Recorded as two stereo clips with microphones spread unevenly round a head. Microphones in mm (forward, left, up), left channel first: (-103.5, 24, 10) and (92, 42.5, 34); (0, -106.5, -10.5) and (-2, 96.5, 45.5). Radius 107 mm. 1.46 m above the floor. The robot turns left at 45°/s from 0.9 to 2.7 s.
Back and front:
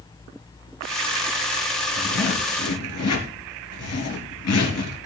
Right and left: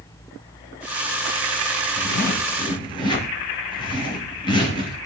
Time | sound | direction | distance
2.0 | a zipper | 130° right | 4 m